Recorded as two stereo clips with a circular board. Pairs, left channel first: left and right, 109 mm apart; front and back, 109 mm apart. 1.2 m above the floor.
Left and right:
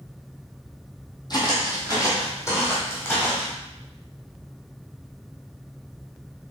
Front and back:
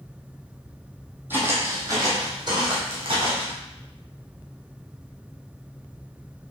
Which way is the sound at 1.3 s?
120° left.